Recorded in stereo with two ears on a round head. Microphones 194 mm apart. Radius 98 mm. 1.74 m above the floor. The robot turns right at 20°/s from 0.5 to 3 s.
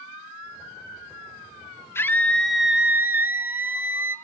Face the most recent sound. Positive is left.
turn(degrees=-10)  # may be behind; listen again after turning